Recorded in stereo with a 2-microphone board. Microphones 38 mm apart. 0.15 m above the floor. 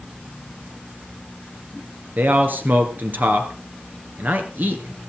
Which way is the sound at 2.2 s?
60° right (ahead or behind).